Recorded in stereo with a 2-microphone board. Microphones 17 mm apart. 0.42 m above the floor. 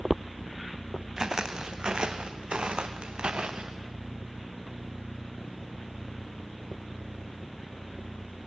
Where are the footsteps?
35° right (ahead or behind), 1.7 m; by 3.8 s 70° right (ahead or behind), 2.5 m.